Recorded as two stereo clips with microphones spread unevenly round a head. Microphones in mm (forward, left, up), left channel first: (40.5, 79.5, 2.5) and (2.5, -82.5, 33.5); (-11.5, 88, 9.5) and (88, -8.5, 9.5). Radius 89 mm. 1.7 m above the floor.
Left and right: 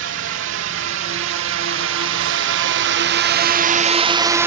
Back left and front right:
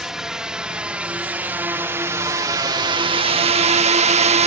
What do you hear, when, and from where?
0.0 s a drone: 130° right; by 4.5 s 20° right